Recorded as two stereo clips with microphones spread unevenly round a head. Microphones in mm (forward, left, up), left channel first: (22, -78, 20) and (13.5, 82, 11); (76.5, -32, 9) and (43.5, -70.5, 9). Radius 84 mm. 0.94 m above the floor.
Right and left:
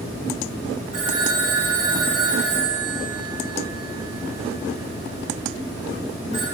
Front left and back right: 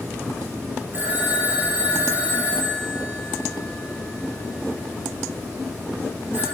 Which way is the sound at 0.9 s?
150° left.